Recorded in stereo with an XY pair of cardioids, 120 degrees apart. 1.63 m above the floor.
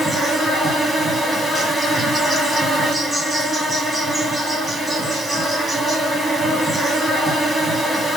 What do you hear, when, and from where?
0.0 s an insect: 15° right, 2.0 m